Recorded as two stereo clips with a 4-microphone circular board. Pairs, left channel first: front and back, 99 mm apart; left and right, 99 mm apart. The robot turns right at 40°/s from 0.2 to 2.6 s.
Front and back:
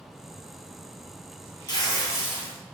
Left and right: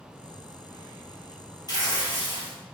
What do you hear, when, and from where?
1.7 s tearing paper: 40° left, 1.0 m; by 2.6 s 80° left, 1.0 m